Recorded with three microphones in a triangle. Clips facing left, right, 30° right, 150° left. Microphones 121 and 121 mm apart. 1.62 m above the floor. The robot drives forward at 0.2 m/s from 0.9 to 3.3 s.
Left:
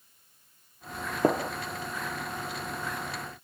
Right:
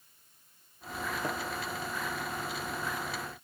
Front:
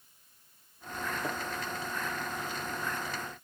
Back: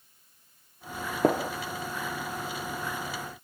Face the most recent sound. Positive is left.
turn(degrees=145)